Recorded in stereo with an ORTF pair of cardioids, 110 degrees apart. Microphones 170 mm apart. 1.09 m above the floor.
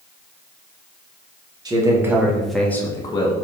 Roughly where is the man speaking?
Ahead right.